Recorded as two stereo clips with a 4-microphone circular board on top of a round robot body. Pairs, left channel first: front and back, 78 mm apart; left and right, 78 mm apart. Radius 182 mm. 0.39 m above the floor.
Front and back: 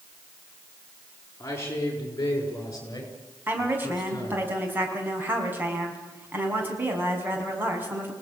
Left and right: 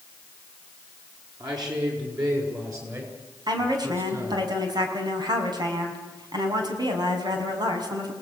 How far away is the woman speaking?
About 5 m.